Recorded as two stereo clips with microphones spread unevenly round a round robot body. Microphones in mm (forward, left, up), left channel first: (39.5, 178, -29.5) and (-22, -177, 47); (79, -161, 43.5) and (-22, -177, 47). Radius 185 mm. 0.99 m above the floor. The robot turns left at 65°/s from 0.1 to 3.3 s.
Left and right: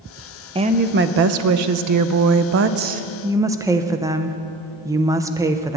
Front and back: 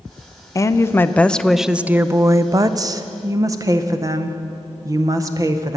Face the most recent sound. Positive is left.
turn(degrees=165)